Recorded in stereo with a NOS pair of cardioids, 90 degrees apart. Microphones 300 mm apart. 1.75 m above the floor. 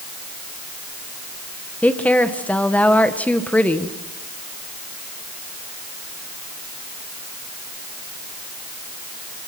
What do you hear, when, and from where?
1.8 s a woman speaking: 5° left, 1.8 m